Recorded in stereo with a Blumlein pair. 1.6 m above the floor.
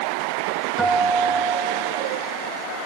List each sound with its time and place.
0.8 s a guitar: 10° right, 1.3 m